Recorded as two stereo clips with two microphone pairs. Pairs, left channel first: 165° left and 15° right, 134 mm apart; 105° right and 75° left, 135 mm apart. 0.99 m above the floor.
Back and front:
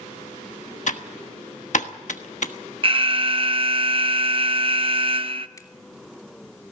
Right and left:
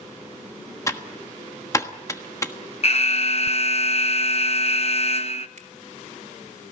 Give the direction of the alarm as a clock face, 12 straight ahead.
2 o'clock.